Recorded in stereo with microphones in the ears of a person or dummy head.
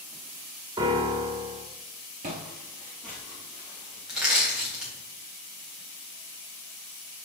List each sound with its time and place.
0.8 s a piano: 20° right (ahead or behind), 1.0 m
2.2 s footsteps: 20° right (ahead or behind), 1.1 m; by 4.0 s 15° left (ahead or behind), 1.7 m
4.1 s crushing: 5° right (ahead or behind), 2 m